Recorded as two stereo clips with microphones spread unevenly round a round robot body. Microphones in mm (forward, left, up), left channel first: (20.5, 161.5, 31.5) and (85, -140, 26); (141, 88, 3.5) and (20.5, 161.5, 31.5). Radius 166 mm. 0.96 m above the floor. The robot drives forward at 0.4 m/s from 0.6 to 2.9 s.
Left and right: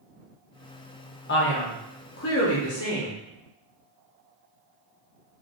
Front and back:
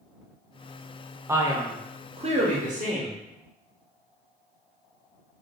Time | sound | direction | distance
1.3 | a man speaking | 65° left | 0.8 m